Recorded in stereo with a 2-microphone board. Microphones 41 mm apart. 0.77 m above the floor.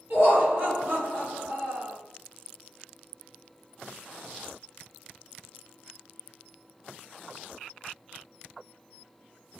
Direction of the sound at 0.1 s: 60° right (ahead or behind).